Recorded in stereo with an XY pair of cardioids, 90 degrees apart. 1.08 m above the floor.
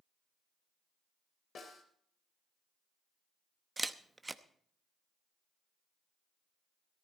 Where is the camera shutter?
20° right, 0.8 m.